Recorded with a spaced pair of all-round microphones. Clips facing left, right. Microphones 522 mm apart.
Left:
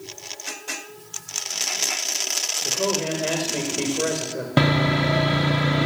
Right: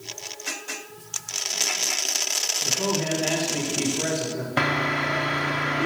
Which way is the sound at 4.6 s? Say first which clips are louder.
Left 9 dB; 60° left (ahead or behind).